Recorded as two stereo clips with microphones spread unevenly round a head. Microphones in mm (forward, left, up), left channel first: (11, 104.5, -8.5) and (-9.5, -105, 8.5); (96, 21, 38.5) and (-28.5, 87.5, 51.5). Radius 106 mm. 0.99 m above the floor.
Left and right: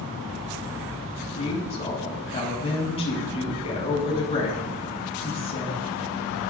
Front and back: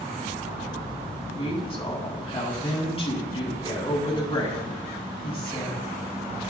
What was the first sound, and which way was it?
A woman speaking, 20° left.